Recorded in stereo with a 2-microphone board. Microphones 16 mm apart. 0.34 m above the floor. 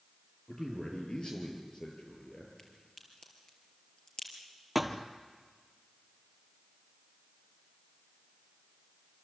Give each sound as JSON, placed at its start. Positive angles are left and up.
{"t": 0.5, "sound": "a man speaking", "side_deg": 35, "distance_m": 7.0}
{"t": 2.6, "sound": "a crack", "side_deg": 35, "distance_m": 4.5}
{"t": 4.8, "sound": "a thud", "side_deg": -10, "distance_m": 1.4}